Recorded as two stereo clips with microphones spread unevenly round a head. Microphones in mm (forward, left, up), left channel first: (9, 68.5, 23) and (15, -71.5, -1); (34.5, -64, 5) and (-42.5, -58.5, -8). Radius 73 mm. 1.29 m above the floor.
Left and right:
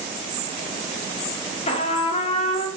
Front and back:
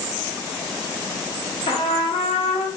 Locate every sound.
1.7 s a trumpet: 40° left, 0.5 m